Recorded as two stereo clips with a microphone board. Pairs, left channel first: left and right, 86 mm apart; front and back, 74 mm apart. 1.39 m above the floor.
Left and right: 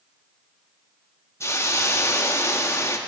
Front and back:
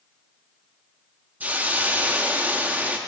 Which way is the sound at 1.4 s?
125° left.